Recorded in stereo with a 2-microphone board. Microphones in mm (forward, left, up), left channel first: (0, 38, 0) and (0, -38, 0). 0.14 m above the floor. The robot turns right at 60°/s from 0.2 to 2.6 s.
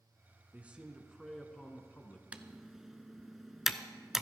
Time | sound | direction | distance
0.5 | a man speaking | 45° right | 1.2 m
2.3 | typing on a keyboard | 20° right (ahead or behind) | 0.5 m